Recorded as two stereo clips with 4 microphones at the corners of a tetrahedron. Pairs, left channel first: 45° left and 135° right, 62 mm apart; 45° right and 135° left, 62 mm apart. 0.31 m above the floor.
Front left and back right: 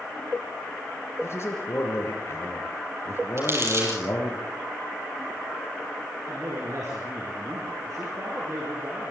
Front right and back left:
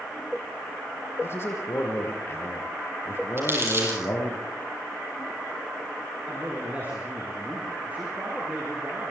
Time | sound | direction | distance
1.2 | a man speaking | straight ahead | 6 m
3.4 | crumpling | 175° right | 8.5 m
6.3 | a man speaking | 165° right | 6 m